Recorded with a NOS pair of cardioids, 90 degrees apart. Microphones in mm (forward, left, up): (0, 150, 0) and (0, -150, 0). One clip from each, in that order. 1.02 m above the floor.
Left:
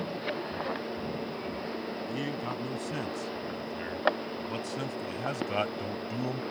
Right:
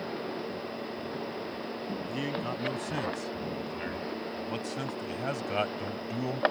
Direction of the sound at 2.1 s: 10° right.